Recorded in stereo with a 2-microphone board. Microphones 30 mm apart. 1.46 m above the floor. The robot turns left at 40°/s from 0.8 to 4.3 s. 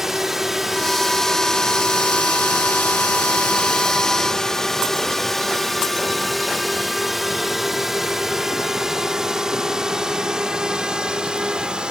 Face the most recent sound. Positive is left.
turn(degrees=-25)  # may be behind; listen again after turning